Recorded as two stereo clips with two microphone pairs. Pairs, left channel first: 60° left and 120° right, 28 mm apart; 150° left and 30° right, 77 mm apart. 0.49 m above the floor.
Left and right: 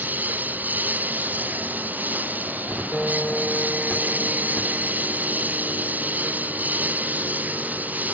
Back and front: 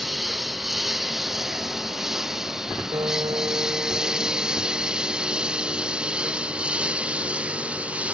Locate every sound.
0.0 s a lawn mower: 120° right; by 8.2 s 100° right
2.9 s a piano: 5° right